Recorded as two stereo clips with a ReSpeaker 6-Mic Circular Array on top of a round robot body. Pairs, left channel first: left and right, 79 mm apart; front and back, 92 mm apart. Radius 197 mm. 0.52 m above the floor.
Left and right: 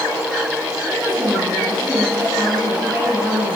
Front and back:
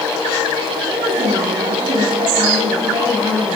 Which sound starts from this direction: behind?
A woman speaking, at 0.9 s.